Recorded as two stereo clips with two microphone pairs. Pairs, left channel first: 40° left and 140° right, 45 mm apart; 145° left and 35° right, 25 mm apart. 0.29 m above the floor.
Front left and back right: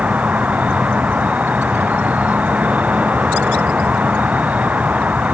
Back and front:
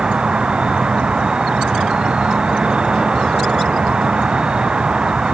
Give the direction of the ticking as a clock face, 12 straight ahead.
I don't hear ticking.